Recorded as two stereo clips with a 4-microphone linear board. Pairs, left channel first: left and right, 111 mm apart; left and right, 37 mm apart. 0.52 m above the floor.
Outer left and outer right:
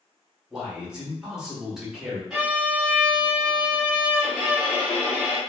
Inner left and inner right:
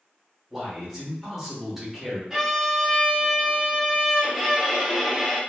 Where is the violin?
5° right (ahead or behind), 1.5 m.